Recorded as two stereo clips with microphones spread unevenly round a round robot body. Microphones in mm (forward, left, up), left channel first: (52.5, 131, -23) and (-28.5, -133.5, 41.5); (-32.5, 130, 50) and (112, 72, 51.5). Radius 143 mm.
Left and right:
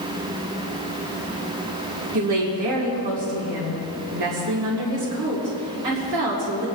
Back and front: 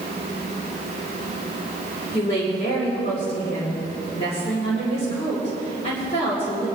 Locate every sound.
2.1 s a woman speaking: 140° right, 2.5 m